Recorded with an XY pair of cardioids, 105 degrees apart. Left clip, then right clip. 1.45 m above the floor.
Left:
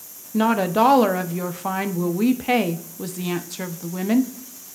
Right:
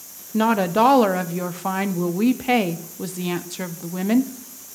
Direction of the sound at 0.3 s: 5° right.